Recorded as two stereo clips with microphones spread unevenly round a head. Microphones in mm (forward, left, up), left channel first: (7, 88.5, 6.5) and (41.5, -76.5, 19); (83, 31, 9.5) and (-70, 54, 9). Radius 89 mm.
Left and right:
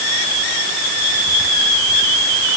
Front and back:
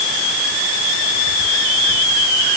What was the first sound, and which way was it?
Only background noise.